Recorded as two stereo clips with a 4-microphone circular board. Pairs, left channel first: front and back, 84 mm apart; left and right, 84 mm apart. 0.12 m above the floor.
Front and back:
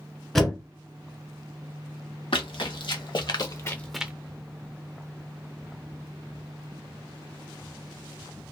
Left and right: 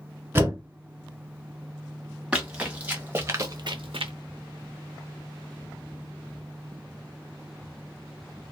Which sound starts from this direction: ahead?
Running footsteps, at 2.3 s.